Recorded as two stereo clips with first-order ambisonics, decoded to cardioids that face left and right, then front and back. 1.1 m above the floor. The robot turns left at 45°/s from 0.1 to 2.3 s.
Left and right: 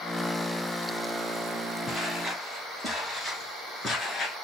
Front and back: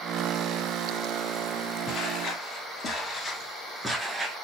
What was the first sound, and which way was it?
Footsteps, 15° left.